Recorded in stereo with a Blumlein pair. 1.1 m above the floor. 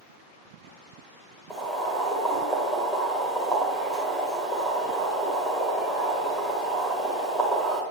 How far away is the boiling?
About 2.0 m.